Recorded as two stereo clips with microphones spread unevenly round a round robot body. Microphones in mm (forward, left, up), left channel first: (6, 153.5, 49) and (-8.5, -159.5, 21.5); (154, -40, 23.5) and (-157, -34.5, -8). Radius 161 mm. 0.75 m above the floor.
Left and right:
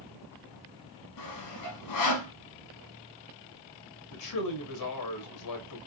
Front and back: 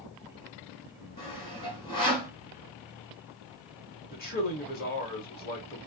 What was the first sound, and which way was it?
Sawing, 75° left.